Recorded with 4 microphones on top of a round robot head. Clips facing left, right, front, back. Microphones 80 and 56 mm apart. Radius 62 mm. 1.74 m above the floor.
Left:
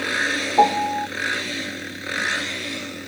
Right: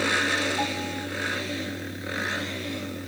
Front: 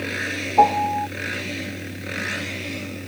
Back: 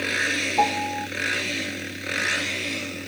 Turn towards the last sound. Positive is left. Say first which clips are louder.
# left 12 dB, front 9 dB
turn(degrees=60)